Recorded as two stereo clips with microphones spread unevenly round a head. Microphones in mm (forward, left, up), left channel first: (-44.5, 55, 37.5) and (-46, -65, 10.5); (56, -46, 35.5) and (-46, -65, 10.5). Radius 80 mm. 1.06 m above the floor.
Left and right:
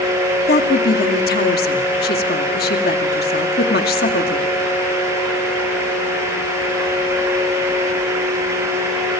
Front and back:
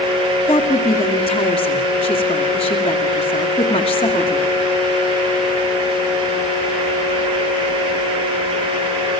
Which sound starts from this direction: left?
A woman speaking, at 0.5 s.